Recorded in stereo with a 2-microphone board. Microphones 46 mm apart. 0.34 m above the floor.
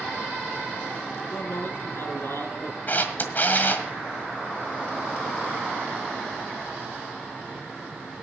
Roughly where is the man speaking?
Left.